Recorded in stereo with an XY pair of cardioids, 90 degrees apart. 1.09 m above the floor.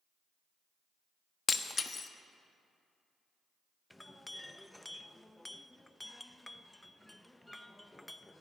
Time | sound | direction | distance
1.5 | breaking glass | 35° left | 1.1 m
3.9 | a clink | 10° left | 0.7 m